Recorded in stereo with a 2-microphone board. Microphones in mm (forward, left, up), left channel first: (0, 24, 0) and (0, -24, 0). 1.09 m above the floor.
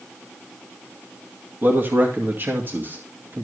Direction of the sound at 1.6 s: 40° right (ahead or behind).